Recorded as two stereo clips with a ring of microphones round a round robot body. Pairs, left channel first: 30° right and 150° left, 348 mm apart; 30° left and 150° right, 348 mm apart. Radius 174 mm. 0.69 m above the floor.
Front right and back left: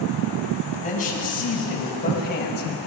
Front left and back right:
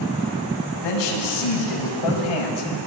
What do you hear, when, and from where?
0.8 s a man speaking: 40° left, 6 m; by 2.7 s 30° left, 5 m